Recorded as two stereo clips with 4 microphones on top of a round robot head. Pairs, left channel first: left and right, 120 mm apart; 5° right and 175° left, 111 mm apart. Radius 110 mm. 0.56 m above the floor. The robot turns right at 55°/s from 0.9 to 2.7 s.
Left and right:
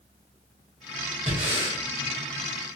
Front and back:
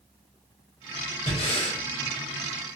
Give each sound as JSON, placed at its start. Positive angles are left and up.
{"t": 1.3, "sound": "breathing", "azimuth_deg": -50, "distance_m": 2.0}